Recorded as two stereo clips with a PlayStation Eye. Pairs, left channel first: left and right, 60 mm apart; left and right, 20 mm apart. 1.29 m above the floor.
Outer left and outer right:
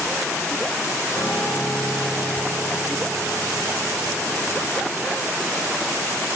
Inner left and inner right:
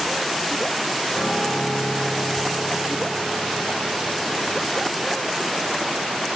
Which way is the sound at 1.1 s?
70° left (ahead or behind).